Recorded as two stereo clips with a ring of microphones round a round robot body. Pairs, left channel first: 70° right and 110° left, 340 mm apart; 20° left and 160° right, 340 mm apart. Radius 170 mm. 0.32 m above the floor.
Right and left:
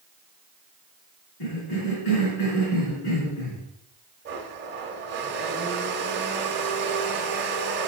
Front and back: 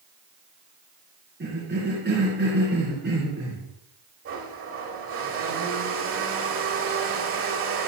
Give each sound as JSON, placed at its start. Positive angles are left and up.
{"t": 1.4, "sound": "a cough", "azimuth_deg": -95, "distance_m": 3.5}
{"t": 4.2, "sound": "a blender", "azimuth_deg": 165, "distance_m": 1.1}